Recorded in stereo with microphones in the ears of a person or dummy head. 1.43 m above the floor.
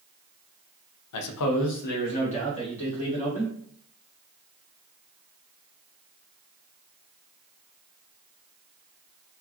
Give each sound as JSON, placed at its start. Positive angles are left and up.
{"t": 1.1, "sound": "a man speaking", "side_deg": 75, "distance_m": 0.5}